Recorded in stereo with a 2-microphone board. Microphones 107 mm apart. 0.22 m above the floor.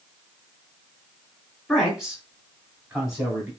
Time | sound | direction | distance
1.7 | a man speaking | centre (ahead or behind) | 1.7 m